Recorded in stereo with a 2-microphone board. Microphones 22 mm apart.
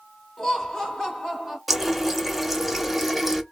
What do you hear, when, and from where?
0.4 s laughter: 25° left (ahead or behind), 1.7 m
1.7 s a running tap: 5° right (ahead or behind), 0.6 m